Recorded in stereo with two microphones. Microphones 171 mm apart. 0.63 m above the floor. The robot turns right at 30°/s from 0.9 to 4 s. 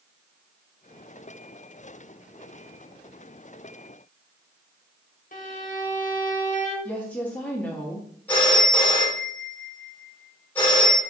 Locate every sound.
5.3 s a violin: 50° left (ahead or behind), 0.7 m
6.8 s a woman speaking: 10° left (ahead or behind), 0.7 m
8.3 s a phone ringing: 10° left (ahead or behind), 1.0 m